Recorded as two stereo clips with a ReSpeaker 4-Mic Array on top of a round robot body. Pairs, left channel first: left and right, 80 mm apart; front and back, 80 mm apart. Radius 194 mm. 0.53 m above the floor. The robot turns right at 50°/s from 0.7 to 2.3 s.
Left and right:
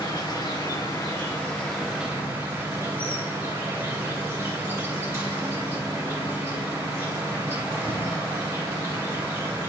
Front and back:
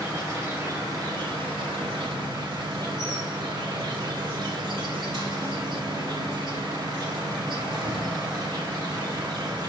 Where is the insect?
125° left, 3.5 m; by 9.7 s 155° right, 3.5 m.